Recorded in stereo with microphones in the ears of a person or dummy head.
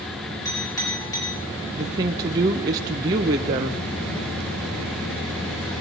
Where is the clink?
20° left (ahead or behind), 6 m.